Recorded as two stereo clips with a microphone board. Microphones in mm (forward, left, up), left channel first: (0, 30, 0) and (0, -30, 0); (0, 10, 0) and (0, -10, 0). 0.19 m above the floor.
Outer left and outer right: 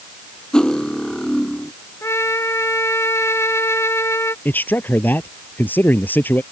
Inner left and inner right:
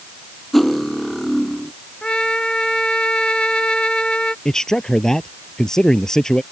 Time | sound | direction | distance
0.5 | cutlery clinking | 10° left (ahead or behind) | ?
2.0 | a trumpet | 55° left (ahead or behind) | ?
4.5 | a man speaking | 30° left (ahead or behind) | ?